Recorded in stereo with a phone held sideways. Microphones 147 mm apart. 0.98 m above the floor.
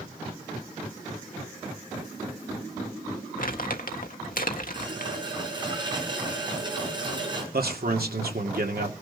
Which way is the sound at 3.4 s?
65° left (ahead or behind).